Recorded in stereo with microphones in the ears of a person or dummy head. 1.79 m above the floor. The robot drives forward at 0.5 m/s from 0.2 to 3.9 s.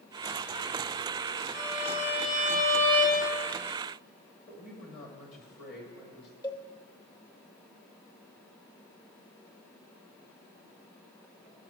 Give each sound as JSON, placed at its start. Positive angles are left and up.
{"t": 1.5, "sound": "a violin", "side_deg": 15, "distance_m": 1.5}
{"t": 4.5, "sound": "a woman speaking", "side_deg": 45, "distance_m": 2.0}
{"t": 6.4, "sound": "a cowbell", "side_deg": 25, "distance_m": 0.6}